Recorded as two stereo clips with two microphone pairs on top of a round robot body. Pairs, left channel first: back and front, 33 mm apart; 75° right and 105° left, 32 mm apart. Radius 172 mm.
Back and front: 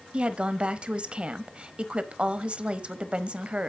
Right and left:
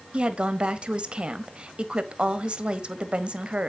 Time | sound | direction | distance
0.1 | a woman speaking | 40° left | 1.2 m